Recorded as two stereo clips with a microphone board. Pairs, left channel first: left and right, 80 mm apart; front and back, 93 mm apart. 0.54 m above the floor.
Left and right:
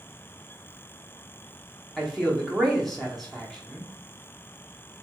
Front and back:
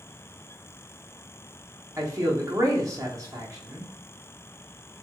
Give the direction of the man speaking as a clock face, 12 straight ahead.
6 o'clock.